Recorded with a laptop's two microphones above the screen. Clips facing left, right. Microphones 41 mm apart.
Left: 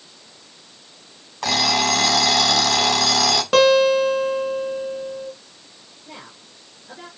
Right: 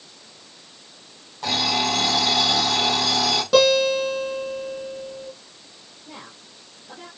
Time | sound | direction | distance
1.4 | an alarm clock | 85° left | 3 m
3.5 | a guitar | 55° left (ahead or behind) | 4 m
6.0 | a woman speaking | 30° left (ahead or behind) | 5.5 m